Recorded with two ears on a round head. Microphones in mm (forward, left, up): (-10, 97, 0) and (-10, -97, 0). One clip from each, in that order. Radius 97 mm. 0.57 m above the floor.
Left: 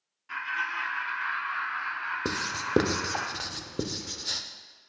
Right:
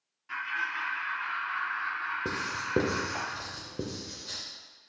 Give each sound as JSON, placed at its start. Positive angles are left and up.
{"t": 0.3, "sound": "laughter", "side_deg": 0, "distance_m": 0.8}
{"t": 2.2, "sound": "writing", "side_deg": 50, "distance_m": 0.6}